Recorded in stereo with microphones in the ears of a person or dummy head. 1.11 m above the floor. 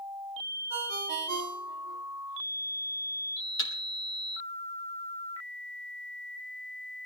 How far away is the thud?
About 3 m.